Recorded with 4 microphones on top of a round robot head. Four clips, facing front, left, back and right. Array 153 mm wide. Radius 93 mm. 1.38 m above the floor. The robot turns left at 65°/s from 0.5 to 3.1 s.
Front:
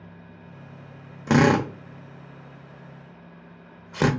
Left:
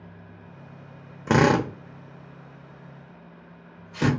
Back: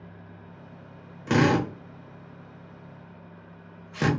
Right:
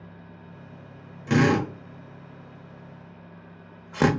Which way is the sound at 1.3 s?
60° left.